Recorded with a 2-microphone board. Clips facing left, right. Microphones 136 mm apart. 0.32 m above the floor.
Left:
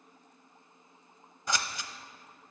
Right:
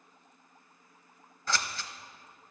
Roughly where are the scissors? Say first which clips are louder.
Even; centre.